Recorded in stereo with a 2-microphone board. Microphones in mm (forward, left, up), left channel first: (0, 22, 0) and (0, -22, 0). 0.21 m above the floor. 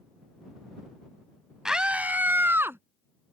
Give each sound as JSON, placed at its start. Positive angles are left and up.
{"t": 1.6, "sound": "a scream", "side_deg": -15}